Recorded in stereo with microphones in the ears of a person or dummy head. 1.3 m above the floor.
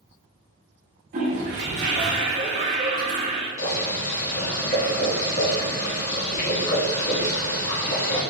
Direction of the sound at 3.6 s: 50° left (ahead or behind).